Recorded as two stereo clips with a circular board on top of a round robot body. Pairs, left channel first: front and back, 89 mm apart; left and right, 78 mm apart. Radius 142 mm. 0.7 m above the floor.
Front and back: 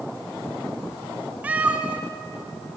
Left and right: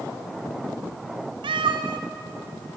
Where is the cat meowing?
105° right, 1.1 m.